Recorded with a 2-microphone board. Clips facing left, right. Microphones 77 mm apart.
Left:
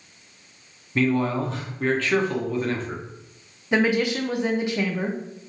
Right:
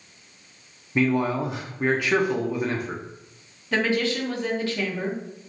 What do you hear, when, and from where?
0.9 s a man speaking: 15° right (ahead or behind), 0.6 m
3.7 s a woman speaking: 20° left (ahead or behind), 0.5 m